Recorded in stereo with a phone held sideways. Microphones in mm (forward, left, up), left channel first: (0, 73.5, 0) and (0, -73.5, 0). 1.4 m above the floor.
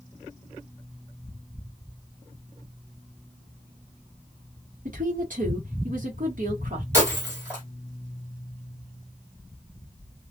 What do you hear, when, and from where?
4.8 s a woman speaking: 65° right (ahead or behind), 1.2 m
6.9 s breaking glass: 15° right (ahead or behind), 1.9 m